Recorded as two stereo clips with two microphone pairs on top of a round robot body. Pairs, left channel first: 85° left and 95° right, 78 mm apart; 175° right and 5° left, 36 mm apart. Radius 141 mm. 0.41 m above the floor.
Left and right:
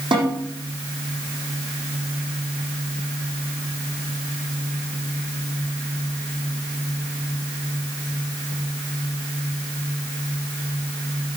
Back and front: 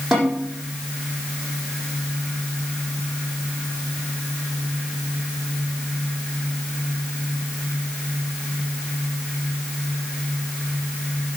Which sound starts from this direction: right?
A snare drum, at 0.1 s.